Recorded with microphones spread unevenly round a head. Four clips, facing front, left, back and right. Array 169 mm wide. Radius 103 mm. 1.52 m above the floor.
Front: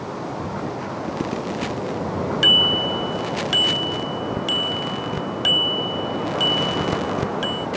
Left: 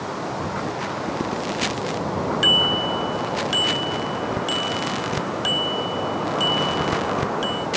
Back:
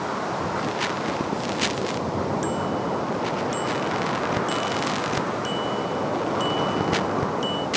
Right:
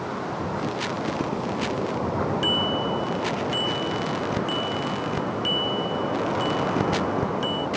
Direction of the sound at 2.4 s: 35° left.